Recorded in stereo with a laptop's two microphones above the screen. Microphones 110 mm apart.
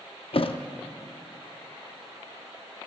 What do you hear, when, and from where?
0.3 s a thud: 55° left (ahead or behind), 0.6 m